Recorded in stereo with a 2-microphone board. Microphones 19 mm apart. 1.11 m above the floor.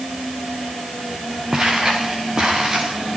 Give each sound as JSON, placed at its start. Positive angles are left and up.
{"t": 1.5, "sound": "footsteps", "side_deg": -30, "distance_m": 8.5}